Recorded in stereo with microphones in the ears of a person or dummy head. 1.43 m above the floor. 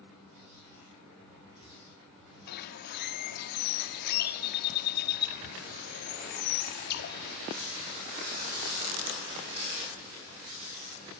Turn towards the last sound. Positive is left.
turn(degrees=55)  # may be behind; listen again after turning